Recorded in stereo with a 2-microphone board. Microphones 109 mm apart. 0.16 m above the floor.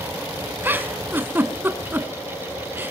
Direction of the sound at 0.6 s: 20° right (ahead or behind).